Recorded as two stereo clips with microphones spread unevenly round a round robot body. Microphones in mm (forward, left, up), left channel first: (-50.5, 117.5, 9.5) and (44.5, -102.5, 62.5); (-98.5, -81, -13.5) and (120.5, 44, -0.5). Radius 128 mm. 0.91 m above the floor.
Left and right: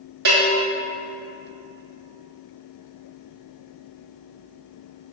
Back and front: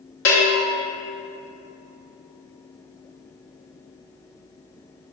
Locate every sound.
0.2 s a bell: 115° right, 1.8 m